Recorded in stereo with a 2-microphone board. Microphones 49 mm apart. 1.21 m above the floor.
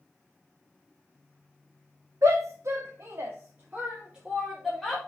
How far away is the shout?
About 1.7 m.